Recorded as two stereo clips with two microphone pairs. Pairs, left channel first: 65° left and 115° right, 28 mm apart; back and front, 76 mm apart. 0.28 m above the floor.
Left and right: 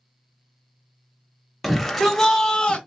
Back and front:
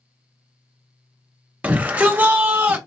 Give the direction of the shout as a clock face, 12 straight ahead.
1 o'clock.